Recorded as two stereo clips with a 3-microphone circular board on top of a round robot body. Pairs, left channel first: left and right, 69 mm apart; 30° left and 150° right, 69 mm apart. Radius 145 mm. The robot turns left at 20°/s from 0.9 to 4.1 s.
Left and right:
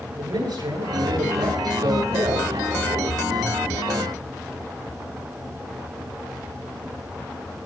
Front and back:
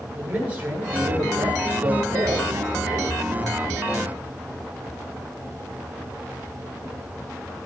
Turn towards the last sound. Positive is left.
turn(degrees=-145)